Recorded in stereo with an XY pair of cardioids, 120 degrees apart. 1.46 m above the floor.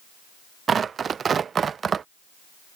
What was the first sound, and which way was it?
Tearing paper, 40° right.